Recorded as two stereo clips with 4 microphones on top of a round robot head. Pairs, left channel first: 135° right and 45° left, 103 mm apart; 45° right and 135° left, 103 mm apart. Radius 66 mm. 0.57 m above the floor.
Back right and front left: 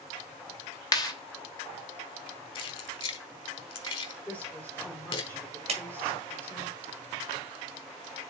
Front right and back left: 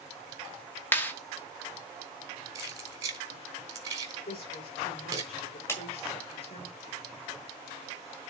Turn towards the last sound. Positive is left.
turn(degrees=20)